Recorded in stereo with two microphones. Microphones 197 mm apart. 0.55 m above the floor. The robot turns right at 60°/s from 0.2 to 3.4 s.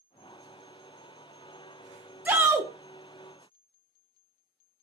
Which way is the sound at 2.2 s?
10° right (ahead or behind).